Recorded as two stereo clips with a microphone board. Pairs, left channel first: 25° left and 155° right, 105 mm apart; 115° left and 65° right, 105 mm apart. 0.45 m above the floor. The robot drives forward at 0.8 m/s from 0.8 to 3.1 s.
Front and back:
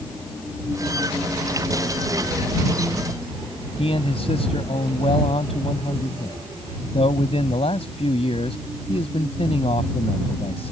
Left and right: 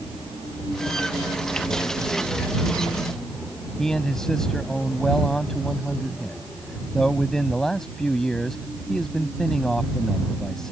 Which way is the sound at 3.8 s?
25° left.